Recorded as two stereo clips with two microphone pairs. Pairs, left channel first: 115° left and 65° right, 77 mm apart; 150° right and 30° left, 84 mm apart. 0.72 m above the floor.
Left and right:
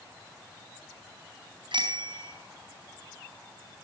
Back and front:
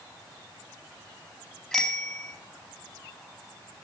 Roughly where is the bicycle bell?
Ahead right.